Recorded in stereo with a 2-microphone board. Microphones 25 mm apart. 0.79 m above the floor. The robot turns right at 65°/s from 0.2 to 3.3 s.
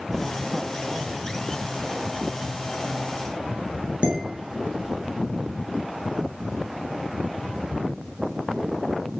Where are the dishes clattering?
55° right (ahead or behind), 6.5 m.